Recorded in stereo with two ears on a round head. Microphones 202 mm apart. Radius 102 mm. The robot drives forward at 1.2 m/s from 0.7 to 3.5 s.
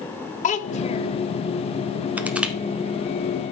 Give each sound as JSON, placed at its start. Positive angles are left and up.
{"t": 0.4, "sound": "a child speaking", "side_deg": 35, "distance_m": 1.1}
{"t": 2.2, "sound": "crushing", "side_deg": -5, "distance_m": 1.0}